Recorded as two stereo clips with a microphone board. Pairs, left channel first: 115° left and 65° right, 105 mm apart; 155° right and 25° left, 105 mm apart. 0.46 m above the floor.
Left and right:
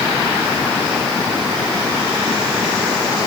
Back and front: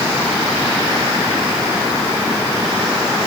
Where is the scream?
I don't hear a scream.